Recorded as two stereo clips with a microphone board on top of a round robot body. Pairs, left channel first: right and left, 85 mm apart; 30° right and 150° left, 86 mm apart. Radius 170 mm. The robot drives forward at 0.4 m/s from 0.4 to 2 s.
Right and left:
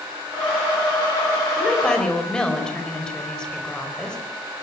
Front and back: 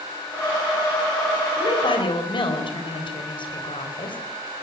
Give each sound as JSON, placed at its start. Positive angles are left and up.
{"t": 1.6, "sound": "a woman speaking", "azimuth_deg": -10, "distance_m": 4.5}